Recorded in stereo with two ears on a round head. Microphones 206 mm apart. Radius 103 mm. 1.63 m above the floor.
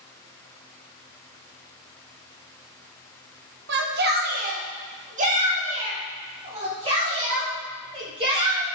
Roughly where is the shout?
Right.